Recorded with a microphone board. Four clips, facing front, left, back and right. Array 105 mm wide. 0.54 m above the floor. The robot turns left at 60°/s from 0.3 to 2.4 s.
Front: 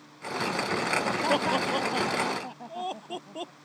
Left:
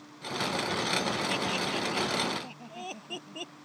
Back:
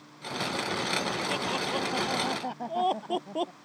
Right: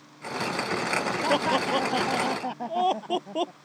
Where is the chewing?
No chewing in this recording.